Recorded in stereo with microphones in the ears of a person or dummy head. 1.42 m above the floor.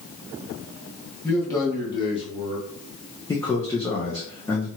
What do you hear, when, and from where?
1.2 s a man speaking: 5° left (ahead or behind), 1.5 m; by 2.6 s 40° left (ahead or behind), 1.4 m
3.3 s a man speaking: 15° left (ahead or behind), 0.6 m